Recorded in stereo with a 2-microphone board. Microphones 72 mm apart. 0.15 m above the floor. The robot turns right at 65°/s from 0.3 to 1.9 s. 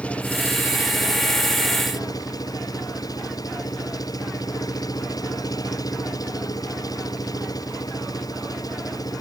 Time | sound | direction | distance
0.0 | an engine running | 20° left | ?